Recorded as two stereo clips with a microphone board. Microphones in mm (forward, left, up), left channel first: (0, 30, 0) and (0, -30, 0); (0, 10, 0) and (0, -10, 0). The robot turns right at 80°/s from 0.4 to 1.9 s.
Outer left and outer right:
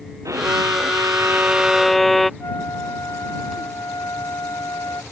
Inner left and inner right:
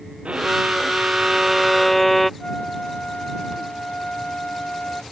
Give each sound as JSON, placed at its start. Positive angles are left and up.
{"t": 0.2, "sound": "a violin", "azimuth_deg": -115}
{"t": 2.4, "sound": "a flute", "side_deg": 70}